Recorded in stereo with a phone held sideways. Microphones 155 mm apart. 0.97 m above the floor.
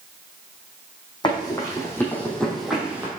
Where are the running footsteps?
30° left (ahead or behind), 3.5 m; by 3.1 s 10° right (ahead or behind), 2.5 m.